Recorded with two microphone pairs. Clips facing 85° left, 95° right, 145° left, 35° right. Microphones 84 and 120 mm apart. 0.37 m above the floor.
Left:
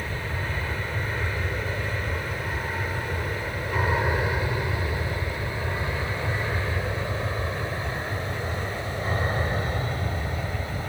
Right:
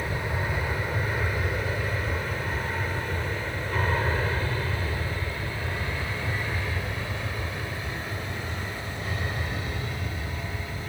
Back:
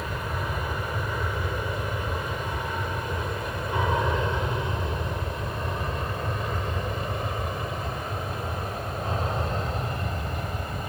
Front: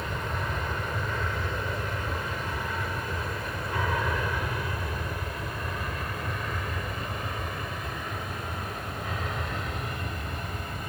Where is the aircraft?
145° right; by 10.9 s 105° left.